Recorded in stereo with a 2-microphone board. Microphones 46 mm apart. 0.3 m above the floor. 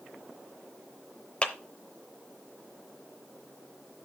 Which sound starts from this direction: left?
A clap, at 1.4 s.